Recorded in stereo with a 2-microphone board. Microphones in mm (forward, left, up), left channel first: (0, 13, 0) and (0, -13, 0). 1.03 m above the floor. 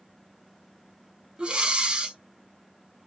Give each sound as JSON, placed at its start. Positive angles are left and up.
{"t": 1.4, "sound": "breathing", "side_deg": -40, "distance_m": 0.5}